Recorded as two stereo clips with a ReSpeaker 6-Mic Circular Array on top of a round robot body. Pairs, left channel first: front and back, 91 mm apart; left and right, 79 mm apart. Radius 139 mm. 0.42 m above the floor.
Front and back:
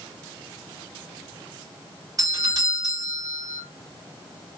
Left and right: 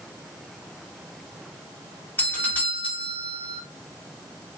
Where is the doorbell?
150° left, 2.5 m.